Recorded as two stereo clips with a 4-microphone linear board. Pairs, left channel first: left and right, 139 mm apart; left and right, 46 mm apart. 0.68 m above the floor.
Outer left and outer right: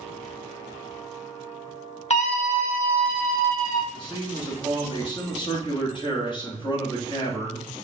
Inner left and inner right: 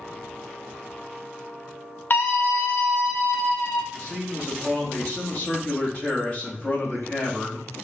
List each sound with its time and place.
2.1 s a scream: 50° left (ahead or behind), 1.1 m; by 3.8 s 75° left (ahead or behind), 2.5 m
3.9 s a man speaking: 35° left (ahead or behind), 1.3 m